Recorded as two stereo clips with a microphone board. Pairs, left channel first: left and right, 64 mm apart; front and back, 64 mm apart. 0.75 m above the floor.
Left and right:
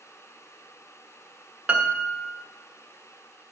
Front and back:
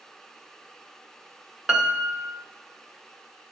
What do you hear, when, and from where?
1.7 s a piano: 125° right, 1.1 m